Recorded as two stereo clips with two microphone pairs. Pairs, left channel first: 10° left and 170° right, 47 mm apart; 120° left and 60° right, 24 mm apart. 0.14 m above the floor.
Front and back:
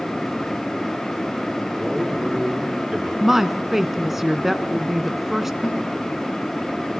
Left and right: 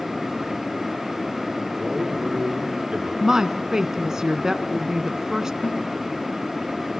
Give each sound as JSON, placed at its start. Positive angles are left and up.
{"t": 1.8, "sound": "a man speaking", "azimuth_deg": -100, "distance_m": 6.0}
{"t": 3.2, "sound": "a woman speaking", "azimuth_deg": -90, "distance_m": 1.2}
{"t": 5.6, "sound": "a snare drum", "azimuth_deg": 95, "distance_m": 6.0}